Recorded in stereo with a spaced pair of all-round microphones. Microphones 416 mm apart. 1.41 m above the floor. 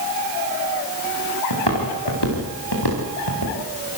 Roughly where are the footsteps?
Left.